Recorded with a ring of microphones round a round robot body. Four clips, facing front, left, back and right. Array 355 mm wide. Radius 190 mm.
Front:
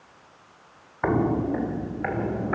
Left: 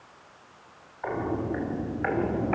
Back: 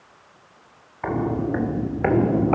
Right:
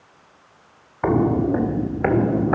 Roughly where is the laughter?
I don't hear laughter.